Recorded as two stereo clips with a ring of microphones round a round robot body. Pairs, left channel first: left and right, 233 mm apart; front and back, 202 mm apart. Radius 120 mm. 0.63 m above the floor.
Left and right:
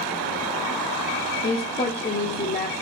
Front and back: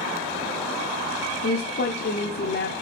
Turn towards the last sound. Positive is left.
turn(degrees=30)